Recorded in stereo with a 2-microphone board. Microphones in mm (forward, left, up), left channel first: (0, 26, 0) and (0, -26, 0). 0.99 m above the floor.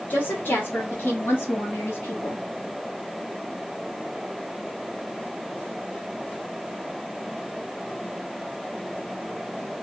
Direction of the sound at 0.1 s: 35° left (ahead or behind).